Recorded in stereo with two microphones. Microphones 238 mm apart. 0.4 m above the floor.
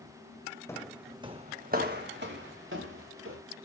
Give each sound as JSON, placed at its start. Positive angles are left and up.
{"t": 0.7, "sound": "footsteps", "side_deg": 10, "distance_m": 1.5}